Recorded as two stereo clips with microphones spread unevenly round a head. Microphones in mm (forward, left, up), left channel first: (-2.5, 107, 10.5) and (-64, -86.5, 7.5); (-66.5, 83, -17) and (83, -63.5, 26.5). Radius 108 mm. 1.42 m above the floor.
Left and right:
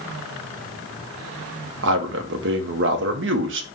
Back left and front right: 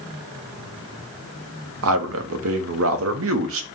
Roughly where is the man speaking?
Right.